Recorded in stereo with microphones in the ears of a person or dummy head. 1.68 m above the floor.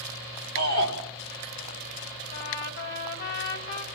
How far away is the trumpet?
About 5 m.